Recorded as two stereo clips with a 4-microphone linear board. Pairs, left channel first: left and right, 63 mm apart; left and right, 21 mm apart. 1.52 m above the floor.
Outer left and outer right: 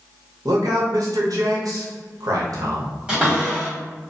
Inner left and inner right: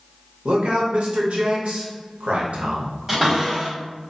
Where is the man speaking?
75° right (ahead or behind), 0.7 m.